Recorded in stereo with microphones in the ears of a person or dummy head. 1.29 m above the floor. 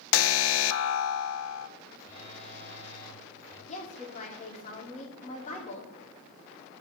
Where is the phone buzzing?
20° left (ahead or behind), 7 m.